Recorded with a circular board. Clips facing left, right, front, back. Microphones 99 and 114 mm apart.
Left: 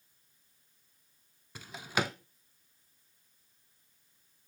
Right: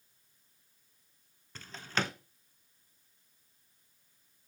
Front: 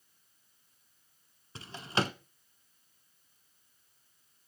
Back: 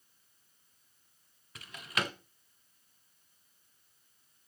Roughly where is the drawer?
Ahead.